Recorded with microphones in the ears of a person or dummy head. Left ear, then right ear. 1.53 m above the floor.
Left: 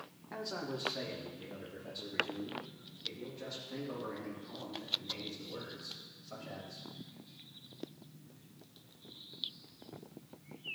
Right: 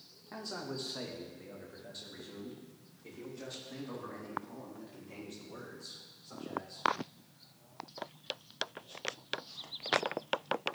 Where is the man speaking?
5° left (ahead or behind), 0.7 m; by 6.9 s 45° right (ahead or behind), 7.5 m.